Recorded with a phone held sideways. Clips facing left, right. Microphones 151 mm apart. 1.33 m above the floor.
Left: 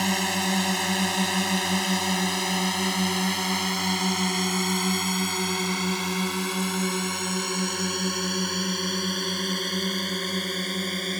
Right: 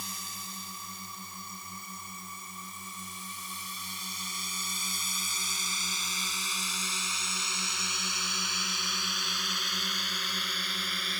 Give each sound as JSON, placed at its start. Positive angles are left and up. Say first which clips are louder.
{"t": 0.0, "sound": "a drone", "louder": "left 20 dB", "side_deg": 75}